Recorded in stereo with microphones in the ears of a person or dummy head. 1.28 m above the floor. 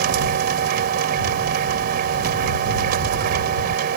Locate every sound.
0.0 s a machine running: 50° right (ahead or behind)